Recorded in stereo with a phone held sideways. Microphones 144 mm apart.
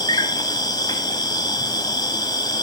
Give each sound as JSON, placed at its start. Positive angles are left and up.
{"t": 0.0, "sound": "an insect", "side_deg": 30, "distance_m": 1.3}